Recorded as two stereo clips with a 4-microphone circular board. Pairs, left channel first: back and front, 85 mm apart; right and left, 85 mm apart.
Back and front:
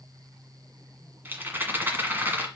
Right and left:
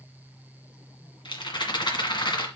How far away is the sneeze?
I don't hear a sneeze.